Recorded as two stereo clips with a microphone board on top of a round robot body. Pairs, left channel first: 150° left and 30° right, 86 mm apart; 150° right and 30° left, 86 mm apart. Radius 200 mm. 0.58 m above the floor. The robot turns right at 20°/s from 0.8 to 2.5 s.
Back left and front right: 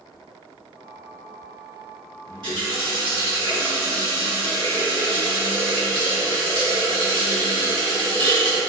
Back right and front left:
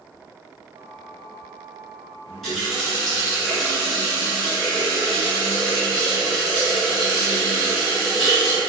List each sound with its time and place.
2.3 s a running tap: 65° right, 2.0 m; by 8.6 s 60° right, 2.0 m